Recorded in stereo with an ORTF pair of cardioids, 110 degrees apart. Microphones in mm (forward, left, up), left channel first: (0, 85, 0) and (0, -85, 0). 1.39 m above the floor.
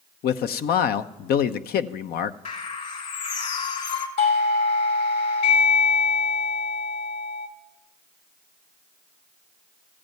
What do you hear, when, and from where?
0.2 s a man speaking: 65° left, 0.9 m
2.5 s a bird: 45° left, 2.5 m
4.2 s a doorbell: 65° left, 5.5 m